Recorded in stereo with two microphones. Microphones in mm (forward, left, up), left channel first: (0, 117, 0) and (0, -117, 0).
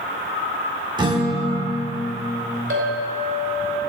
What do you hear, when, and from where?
1.0 s a guitar: 20° right (ahead or behind), 0.8 m
2.7 s a clink: 70° right (ahead or behind), 2.5 m